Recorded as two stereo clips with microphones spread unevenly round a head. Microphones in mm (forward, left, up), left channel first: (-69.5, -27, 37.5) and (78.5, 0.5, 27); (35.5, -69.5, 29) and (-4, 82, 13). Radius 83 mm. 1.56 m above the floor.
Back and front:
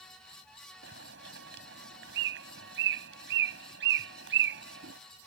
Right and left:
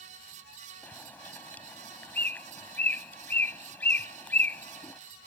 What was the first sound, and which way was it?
A bird, 5° left.